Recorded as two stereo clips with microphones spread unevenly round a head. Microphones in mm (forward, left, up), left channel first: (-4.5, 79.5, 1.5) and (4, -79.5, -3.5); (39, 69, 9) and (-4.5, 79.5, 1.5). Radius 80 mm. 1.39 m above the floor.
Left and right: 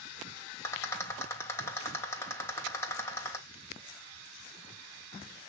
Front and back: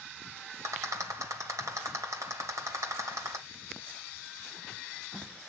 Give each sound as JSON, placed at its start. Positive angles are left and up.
{"t": 0.6, "sound": "a rattle", "azimuth_deg": 170, "distance_m": 2.5}